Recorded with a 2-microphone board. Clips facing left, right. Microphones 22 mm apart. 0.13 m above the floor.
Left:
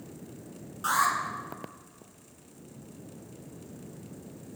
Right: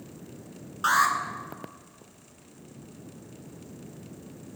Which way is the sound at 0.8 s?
35° right (ahead or behind).